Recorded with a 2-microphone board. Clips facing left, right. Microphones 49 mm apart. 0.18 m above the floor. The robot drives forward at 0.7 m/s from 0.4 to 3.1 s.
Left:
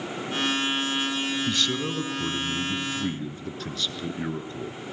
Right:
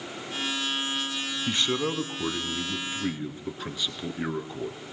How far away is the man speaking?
About 1.2 m.